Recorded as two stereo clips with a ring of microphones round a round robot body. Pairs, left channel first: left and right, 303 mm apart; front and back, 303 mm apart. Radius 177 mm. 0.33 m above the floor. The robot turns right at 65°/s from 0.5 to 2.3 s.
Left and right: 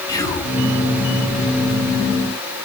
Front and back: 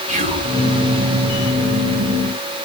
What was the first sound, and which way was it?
Whispering, 155° left.